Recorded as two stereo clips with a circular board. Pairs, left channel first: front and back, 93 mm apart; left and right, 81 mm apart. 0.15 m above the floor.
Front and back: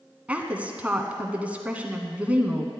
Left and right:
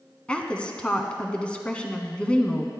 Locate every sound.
0.3 s a woman speaking: 140° left, 1.0 m